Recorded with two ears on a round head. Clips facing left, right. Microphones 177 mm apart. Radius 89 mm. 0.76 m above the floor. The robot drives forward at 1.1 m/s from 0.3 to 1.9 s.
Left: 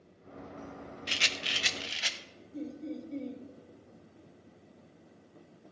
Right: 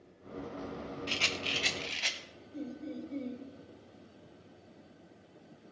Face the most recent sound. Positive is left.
turn(degrees=5)  # may be behind; listen again after turning